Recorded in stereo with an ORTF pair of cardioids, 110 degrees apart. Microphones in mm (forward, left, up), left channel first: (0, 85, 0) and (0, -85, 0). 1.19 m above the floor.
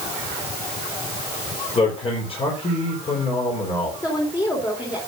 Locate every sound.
1.8 s a man speaking: 35° left, 4 m
4.0 s a woman speaking: 25° left, 3.5 m